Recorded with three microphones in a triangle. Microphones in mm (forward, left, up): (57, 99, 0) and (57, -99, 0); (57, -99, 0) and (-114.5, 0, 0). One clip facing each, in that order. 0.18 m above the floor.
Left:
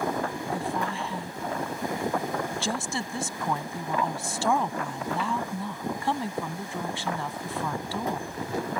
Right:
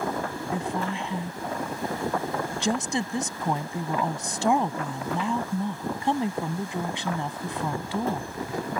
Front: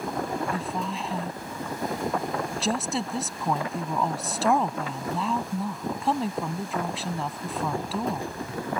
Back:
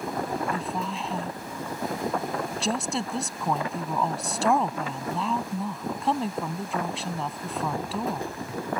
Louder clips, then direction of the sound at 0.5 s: Right 3 dB, even; 120° right.